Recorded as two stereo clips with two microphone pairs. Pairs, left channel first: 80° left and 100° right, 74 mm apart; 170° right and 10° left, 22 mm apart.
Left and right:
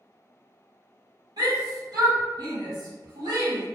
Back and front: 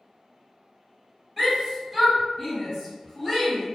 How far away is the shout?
About 1.6 m.